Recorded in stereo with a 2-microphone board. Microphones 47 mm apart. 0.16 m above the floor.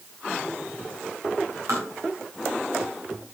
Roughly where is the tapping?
Right.